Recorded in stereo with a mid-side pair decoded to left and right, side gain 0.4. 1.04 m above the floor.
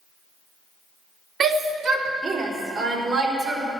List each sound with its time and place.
1.4 s a shout: 65° right, 2.5 m; by 3.7 s 80° right, 5 m